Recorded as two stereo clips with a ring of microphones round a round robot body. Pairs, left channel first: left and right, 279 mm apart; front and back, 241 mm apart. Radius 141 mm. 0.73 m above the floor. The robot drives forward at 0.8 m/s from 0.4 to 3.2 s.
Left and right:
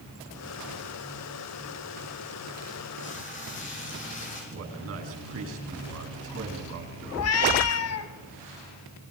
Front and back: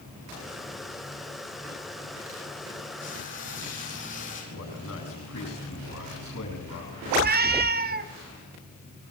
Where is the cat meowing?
130° left, 1.9 m.